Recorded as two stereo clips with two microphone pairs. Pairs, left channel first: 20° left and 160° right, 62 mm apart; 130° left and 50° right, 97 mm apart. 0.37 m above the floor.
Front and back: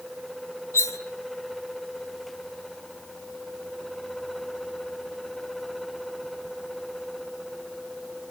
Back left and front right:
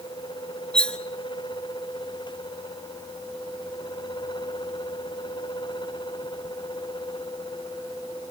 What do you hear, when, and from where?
0.7 s cutlery clinking: 50° left, 1.1 m